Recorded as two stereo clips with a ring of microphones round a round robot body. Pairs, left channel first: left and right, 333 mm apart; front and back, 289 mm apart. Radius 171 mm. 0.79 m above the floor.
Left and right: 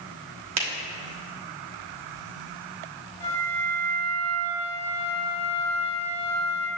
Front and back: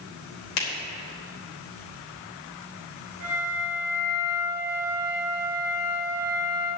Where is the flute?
120° right, 2.5 m.